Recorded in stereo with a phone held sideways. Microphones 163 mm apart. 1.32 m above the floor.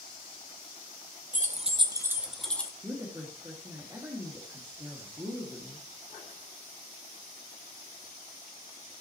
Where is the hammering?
I don't hear hammering.